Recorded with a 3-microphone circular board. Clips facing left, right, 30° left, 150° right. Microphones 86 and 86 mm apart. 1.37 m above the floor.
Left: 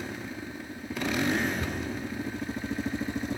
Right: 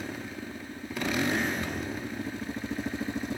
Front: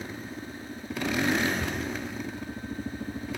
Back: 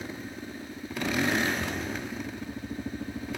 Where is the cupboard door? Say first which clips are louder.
Even, front 1 dB; 65° left, 3.5 m.